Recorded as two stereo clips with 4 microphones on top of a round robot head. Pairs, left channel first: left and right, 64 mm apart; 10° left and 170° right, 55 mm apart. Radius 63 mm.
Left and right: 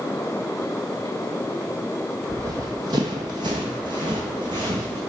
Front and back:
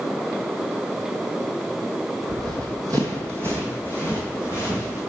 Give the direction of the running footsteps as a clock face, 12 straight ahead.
5 o'clock.